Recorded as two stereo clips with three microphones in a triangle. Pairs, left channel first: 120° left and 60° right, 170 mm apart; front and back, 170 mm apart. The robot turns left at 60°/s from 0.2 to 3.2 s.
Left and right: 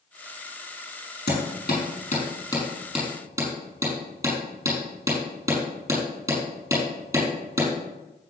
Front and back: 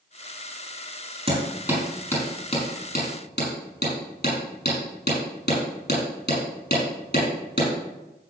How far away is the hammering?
About 6 m.